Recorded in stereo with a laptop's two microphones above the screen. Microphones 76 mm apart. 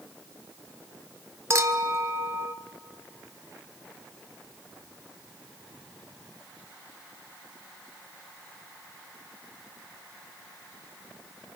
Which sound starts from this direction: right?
A clink, at 1.5 s.